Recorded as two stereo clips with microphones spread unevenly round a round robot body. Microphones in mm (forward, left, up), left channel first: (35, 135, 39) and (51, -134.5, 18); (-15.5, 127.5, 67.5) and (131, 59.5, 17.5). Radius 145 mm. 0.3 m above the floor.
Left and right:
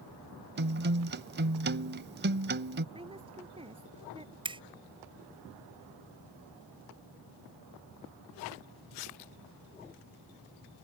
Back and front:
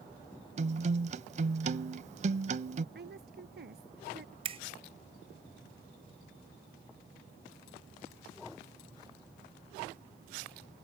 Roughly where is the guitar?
Ahead right.